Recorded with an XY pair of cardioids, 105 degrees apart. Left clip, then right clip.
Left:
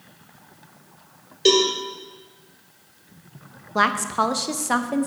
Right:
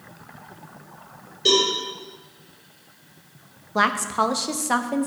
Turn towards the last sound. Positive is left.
turn(degrees=5)